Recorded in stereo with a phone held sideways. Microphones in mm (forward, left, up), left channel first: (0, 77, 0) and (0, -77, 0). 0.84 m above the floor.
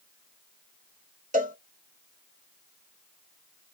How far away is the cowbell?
About 1.5 m.